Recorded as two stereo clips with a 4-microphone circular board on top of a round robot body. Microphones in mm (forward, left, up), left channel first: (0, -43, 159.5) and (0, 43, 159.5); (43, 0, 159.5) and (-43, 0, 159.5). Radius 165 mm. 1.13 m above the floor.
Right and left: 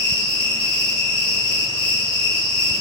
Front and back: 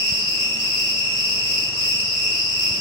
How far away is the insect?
About 0.9 m.